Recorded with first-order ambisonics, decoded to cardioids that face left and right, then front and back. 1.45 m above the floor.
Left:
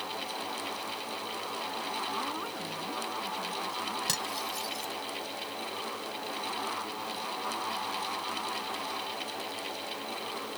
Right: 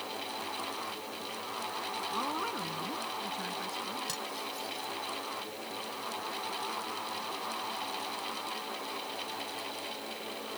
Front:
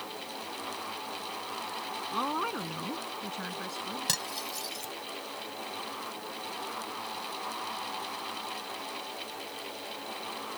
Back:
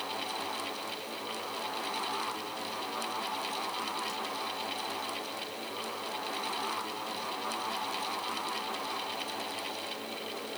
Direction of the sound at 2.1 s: 10° right.